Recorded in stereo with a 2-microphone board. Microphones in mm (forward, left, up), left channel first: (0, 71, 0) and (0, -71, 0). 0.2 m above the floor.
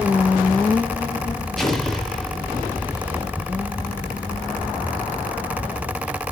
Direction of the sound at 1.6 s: 5° left (ahead or behind).